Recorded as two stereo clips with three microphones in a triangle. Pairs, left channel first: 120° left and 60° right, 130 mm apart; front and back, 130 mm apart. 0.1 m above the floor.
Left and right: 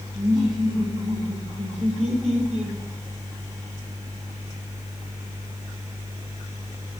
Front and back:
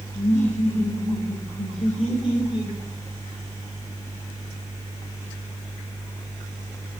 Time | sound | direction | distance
0.1 | laughter | 5° right | 4 m